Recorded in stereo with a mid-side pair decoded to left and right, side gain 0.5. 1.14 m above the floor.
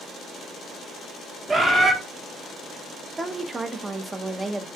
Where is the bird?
30° right, 1.1 m.